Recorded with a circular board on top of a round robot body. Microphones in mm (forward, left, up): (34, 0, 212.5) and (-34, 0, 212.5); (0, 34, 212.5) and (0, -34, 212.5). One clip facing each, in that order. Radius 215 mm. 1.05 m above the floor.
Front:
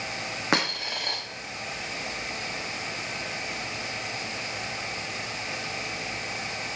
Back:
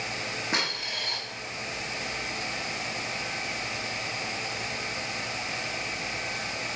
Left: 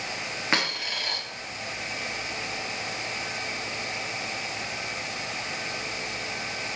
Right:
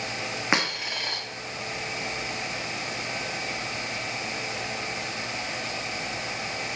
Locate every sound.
0.5 s a dropped coin: 20° right, 0.6 m